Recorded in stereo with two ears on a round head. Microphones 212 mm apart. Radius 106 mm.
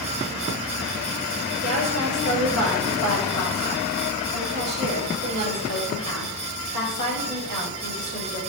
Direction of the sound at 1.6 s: 75° right (ahead or behind).